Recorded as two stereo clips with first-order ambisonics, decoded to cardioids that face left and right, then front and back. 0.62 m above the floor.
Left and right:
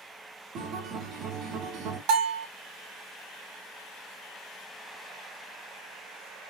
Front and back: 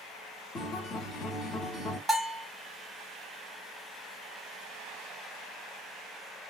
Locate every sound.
0.6 s a guitar: 60° right, 0.8 m
2.1 s a bell: 95° right, 0.9 m